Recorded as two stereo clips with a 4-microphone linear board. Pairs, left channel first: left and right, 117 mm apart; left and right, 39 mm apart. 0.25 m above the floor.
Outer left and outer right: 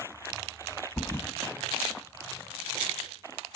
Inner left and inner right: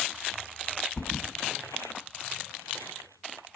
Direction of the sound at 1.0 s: 25° left (ahead or behind).